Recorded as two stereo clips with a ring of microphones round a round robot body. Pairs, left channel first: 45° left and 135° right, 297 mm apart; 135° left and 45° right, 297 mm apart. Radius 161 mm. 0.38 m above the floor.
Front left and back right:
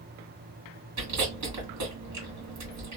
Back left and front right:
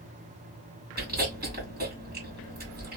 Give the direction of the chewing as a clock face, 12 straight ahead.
3 o'clock.